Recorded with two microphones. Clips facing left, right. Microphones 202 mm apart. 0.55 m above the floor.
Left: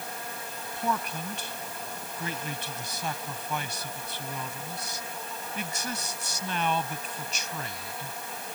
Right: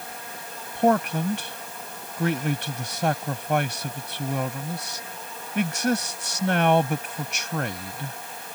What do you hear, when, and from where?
0.8 s a man speaking: 70° right (ahead or behind)